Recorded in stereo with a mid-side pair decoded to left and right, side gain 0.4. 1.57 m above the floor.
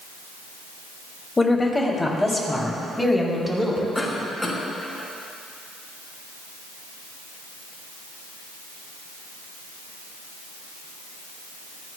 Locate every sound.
1.4 s a woman speaking: 20° left, 2.5 m; by 3.9 s straight ahead, 4 m
4.0 s a cough: 10° left, 5 m